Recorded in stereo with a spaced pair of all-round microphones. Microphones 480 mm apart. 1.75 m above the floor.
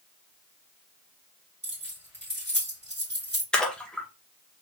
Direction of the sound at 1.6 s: 20° right (ahead or behind).